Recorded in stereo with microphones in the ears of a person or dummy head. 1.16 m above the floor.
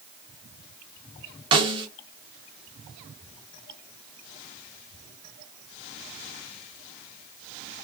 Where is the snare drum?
25° right (ahead or behind), 0.5 m.